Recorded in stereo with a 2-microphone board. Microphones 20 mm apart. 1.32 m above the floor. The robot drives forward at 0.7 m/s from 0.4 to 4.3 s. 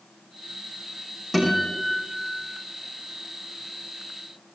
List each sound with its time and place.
1.3 s a guitar: 20° right (ahead or behind), 9 m; by 2.5 s 15° right (ahead or behind), 10 m